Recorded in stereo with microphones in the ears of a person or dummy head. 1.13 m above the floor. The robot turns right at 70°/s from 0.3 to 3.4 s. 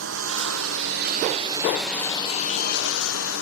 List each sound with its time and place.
0.0 s a lawn mower: 105° right; by 3.4 s 110° left